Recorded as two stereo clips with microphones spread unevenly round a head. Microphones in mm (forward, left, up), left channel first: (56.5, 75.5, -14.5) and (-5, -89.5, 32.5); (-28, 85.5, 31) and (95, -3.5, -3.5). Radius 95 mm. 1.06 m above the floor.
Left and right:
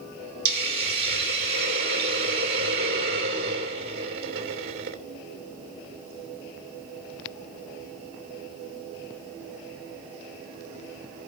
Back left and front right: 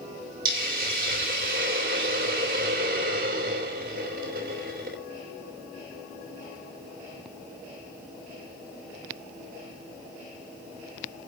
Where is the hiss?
80° right, 3 m.